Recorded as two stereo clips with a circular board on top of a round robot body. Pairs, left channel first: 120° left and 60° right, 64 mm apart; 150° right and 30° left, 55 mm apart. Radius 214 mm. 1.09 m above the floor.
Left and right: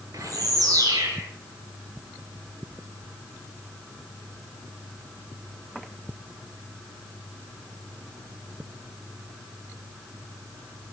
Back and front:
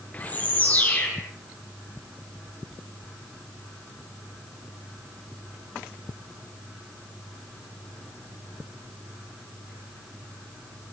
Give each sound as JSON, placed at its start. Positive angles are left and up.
{"t": 0.1, "sound": "a bird", "azimuth_deg": -90, "distance_m": 7.0}